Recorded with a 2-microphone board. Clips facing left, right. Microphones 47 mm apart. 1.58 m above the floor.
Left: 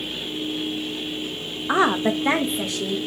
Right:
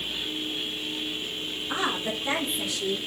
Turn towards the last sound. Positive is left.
turn(degrees=50)  # may be behind; listen again after turning